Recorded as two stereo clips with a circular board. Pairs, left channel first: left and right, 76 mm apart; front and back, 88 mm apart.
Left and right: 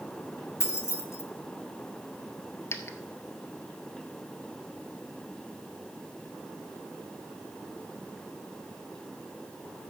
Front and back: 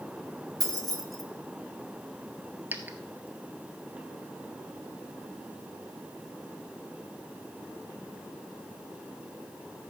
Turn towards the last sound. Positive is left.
turn(degrees=120)